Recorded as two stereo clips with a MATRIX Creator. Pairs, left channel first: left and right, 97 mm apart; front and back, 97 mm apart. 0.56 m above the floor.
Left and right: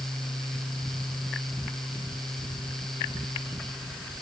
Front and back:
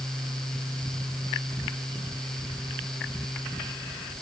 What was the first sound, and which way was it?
Only background noise.